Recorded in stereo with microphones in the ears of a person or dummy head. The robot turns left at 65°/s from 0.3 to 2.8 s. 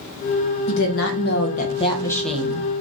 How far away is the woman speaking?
About 0.7 m.